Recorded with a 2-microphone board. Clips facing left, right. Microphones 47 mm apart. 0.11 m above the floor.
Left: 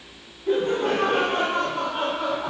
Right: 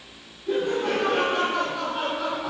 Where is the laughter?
35° left (ahead or behind), 3 m.